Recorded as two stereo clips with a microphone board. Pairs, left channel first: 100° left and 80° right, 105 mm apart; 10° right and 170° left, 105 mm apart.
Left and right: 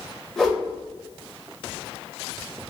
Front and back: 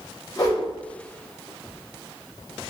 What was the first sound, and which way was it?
A whoosh, 15° left.